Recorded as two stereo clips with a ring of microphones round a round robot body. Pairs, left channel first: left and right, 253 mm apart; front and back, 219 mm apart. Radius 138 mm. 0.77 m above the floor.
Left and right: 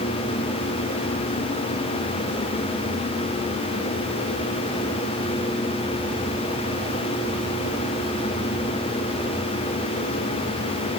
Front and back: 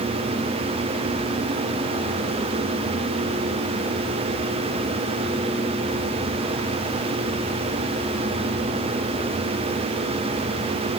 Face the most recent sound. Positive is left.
No sound to turn to.